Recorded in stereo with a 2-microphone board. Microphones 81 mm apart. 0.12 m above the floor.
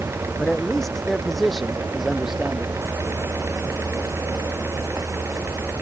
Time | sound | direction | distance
0.4 | a man speaking | 5° left (ahead or behind) | ?